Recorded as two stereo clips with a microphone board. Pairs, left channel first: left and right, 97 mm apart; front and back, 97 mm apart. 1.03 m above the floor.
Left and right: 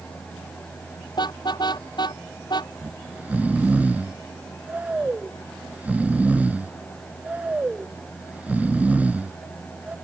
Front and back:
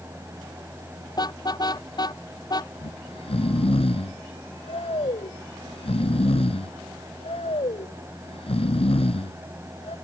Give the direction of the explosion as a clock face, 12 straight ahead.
No explosion in this recording.